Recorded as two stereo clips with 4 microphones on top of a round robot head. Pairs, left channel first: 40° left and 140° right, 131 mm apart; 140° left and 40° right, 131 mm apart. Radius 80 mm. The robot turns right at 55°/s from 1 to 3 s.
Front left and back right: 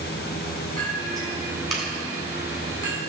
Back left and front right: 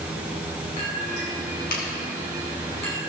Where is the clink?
90° left, 3.5 m; by 3.1 s 160° right, 3.5 m.